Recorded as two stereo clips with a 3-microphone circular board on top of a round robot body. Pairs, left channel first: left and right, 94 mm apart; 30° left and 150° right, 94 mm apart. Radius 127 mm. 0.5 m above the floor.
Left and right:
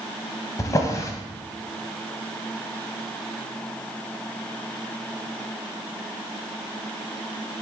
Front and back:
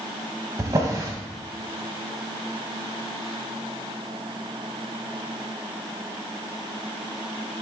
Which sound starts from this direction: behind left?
A drawer, at 0.6 s.